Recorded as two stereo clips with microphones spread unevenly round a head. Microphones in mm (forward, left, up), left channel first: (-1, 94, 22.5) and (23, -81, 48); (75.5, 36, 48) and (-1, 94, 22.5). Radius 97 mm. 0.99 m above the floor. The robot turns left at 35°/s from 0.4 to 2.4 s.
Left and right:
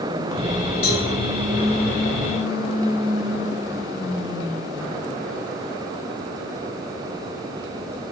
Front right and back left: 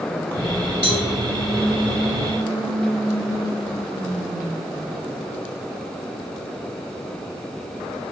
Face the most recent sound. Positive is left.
turn(degrees=15)